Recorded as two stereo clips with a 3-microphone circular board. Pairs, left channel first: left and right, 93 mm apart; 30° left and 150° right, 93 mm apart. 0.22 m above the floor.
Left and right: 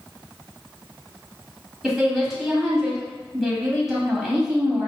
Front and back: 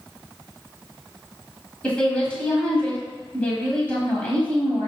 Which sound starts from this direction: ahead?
A woman speaking, at 1.8 s.